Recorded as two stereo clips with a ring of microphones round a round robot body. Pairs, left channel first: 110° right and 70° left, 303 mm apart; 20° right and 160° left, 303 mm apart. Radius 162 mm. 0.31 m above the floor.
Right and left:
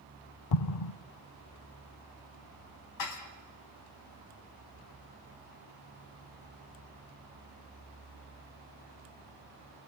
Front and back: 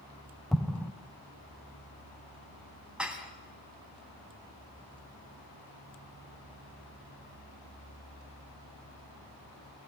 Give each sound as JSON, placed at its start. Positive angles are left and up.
{"t": 0.5, "sound": "an explosion", "azimuth_deg": -110, "distance_m": 0.6}
{"t": 3.0, "sound": "dishes clattering", "azimuth_deg": -115, "distance_m": 2.0}